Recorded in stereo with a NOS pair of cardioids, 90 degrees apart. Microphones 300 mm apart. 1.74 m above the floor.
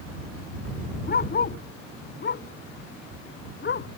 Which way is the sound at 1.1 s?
35° left.